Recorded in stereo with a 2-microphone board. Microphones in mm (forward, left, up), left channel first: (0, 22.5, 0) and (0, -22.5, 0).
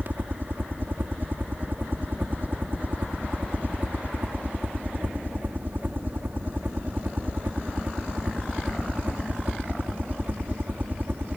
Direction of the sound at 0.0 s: 45° right (ahead or behind).